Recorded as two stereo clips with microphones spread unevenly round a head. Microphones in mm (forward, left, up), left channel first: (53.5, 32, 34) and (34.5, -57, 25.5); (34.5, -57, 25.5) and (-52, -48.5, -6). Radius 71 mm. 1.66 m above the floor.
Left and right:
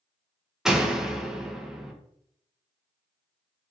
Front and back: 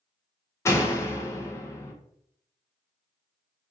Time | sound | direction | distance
0.7 | a door slam | 15° right | 0.6 m